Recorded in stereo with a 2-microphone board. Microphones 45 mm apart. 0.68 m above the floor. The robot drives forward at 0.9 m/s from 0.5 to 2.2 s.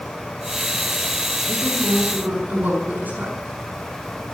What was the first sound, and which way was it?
A woman speaking, 40° right (ahead or behind).